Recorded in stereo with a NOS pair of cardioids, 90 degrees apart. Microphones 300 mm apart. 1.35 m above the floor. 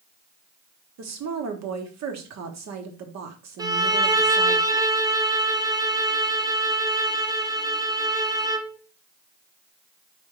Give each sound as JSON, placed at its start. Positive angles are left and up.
{"t": 1.0, "sound": "a woman speaking", "azimuth_deg": -60, "distance_m": 1.2}
{"t": 3.6, "sound": "a violin", "azimuth_deg": -10, "distance_m": 0.5}